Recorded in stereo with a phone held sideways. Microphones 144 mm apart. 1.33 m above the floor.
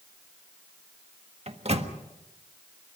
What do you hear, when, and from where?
1.5 s a microwave: 45° right (ahead or behind), 1.5 m